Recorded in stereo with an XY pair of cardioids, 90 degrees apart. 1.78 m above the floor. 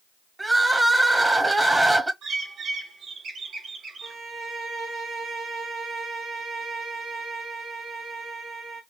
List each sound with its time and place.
0.4 s crying: 15° right, 1.6 m
2.2 s a bird: 65° right, 2.5 m
4.0 s a violin: 50° right, 3 m